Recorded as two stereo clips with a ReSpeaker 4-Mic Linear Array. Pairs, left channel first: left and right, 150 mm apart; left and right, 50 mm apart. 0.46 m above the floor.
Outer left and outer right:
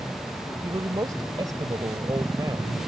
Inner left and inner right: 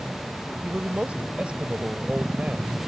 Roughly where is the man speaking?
Right.